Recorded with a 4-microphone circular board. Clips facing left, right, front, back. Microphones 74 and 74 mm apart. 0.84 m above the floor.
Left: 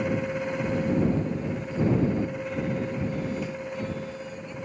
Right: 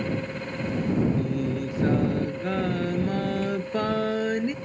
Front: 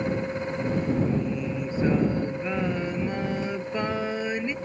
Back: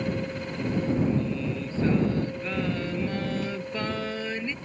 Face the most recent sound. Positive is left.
turn(degrees=-75)